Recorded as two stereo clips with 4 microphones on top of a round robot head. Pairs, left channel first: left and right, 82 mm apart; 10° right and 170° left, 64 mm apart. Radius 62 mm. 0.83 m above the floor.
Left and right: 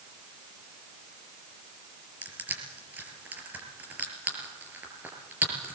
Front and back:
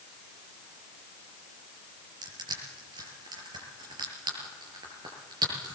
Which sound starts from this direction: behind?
Crushing, at 2.2 s.